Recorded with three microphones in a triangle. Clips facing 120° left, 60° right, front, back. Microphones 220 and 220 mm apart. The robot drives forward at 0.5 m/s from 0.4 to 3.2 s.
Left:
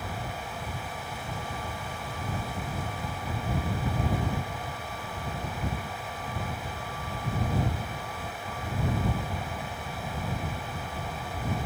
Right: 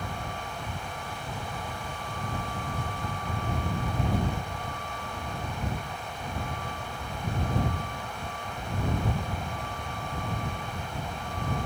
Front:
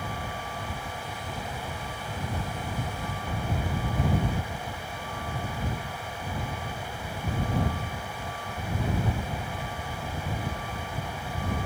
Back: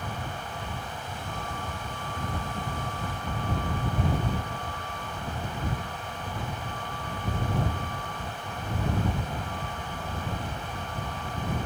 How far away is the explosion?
I don't hear an explosion.